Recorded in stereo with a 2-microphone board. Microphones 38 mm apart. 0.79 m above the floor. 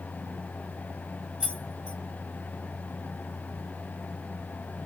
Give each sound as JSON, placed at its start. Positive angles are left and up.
{"t": 1.4, "sound": "keys jangling", "side_deg": -25, "distance_m": 1.6}